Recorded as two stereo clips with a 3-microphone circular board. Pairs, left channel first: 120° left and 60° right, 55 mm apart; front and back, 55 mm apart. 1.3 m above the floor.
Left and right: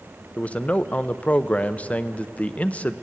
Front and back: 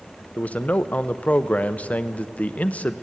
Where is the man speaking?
60° left, 0.7 m.